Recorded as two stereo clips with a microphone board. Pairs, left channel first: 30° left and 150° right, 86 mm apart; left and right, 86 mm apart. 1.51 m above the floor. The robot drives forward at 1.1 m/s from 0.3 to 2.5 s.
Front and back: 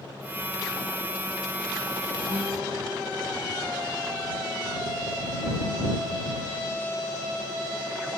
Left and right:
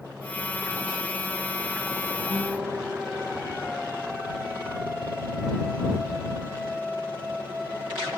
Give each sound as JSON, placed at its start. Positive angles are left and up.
{"t": 2.3, "sound": "a guitar", "azimuth_deg": -145, "distance_m": 1.4}